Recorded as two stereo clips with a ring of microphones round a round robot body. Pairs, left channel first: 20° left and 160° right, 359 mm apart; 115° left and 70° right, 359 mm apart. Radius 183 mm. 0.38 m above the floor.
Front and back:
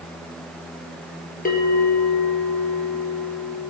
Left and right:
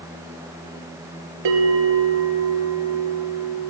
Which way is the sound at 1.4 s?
45° right.